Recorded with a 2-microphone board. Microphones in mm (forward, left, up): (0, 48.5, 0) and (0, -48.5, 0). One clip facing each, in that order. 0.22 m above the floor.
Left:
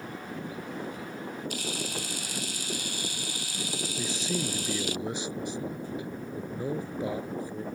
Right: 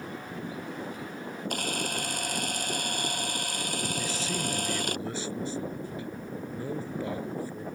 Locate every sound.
1.5 s a camera shutter: 50° right (ahead or behind)
4.0 s a man speaking: 20° left (ahead or behind)